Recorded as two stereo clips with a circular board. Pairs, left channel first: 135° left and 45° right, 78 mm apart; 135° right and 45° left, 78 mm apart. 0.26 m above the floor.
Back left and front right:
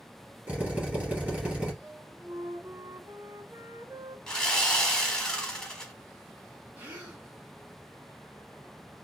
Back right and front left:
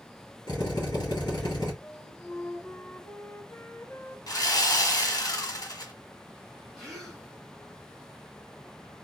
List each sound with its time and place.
0.5 s a drill: 115° right, 2.5 m
1.8 s a flute: 85° right, 0.5 m
4.3 s sawing: 145° right, 1.2 m
6.8 s a gasp: 60° right, 1.5 m